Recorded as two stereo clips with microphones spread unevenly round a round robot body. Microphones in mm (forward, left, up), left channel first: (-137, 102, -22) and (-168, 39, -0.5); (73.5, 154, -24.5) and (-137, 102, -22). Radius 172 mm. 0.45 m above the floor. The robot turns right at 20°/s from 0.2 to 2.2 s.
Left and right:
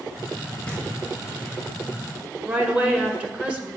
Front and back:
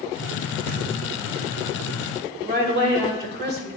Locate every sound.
0.7 s knocking: 135° left, 1.5 m; by 0.9 s 140° left, 1.5 m
2.5 s a woman speaking: 165° left, 1.7 m